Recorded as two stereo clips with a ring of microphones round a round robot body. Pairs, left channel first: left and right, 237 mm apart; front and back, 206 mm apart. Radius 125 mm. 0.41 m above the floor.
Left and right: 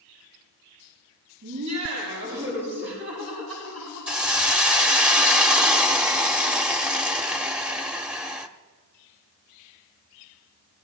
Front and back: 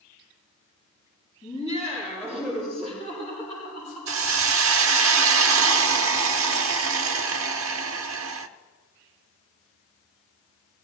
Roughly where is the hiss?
Behind.